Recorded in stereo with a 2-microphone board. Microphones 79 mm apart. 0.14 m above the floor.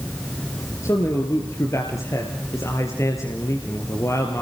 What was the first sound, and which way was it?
A man speaking, 40° left (ahead or behind).